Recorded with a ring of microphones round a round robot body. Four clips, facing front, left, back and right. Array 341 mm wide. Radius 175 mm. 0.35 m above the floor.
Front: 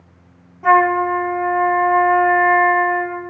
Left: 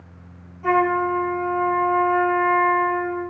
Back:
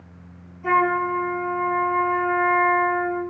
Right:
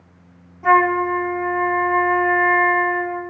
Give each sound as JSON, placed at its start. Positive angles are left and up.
{"t": 0.6, "sound": "a flute", "azimuth_deg": -15, "distance_m": 3.5}